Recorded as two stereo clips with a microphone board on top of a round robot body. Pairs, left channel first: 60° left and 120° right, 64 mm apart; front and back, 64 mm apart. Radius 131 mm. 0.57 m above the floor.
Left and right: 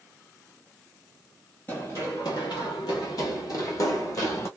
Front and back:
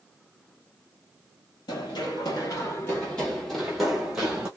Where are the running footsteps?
5° right, 0.8 m; by 4.5 s 100° left, 1.4 m.